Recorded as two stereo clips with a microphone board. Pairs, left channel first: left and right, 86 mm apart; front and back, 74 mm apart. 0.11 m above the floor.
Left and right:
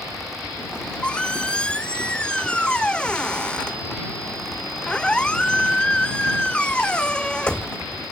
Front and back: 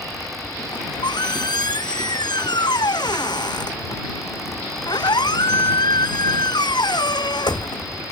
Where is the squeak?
10° left.